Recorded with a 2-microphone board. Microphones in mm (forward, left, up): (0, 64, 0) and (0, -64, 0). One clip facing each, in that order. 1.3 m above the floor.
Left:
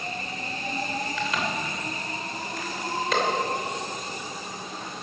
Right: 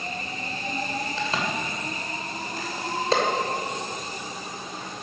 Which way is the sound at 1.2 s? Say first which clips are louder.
Right 1 dB; 30° right (ahead or behind).